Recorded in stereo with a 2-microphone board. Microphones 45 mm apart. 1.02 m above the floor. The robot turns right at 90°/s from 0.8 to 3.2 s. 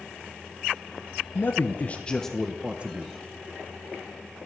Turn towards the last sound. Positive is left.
turn(degrees=-110)